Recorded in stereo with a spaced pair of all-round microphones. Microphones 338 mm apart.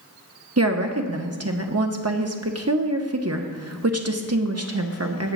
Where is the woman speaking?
45° right (ahead or behind), 0.9 m.